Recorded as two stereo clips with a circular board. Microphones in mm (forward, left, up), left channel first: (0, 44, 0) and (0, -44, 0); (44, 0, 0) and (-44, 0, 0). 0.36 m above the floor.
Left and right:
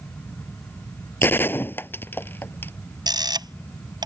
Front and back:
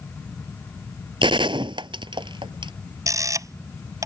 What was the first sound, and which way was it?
A gunshot, 155° left.